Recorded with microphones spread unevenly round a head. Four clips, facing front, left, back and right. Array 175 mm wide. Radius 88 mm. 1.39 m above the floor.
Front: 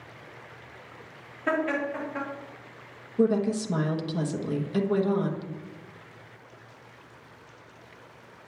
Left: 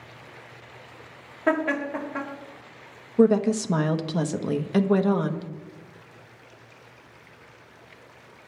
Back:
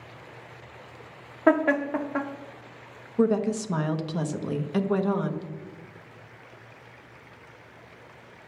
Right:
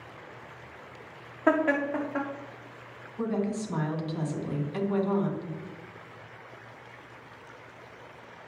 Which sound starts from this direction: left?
A woman speaking, at 3.2 s.